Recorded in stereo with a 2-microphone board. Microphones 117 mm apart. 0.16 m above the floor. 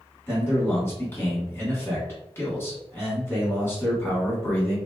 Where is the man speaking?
20° left (ahead or behind), 1.6 m.